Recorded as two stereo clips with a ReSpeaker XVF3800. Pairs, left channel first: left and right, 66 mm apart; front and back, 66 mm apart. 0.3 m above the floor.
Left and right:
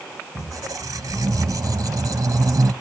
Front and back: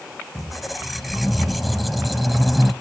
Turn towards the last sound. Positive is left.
turn(degrees=-90)